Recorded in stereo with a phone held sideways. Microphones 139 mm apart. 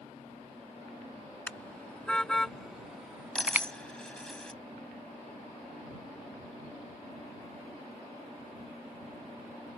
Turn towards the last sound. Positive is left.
turn(degrees=5)  # may be behind; listen again after turning